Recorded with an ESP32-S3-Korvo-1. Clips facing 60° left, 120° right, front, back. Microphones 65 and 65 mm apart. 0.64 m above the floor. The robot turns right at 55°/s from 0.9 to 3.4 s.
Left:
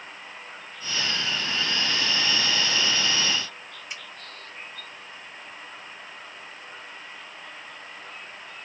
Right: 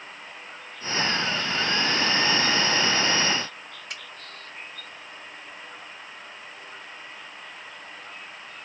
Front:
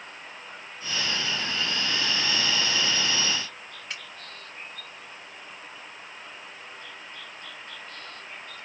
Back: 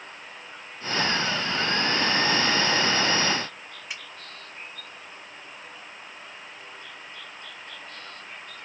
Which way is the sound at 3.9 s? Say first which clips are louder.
Even, even; 100° right.